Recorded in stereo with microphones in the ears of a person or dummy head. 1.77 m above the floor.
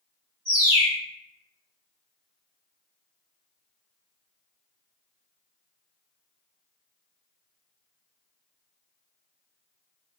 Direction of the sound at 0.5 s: 25° left (ahead or behind).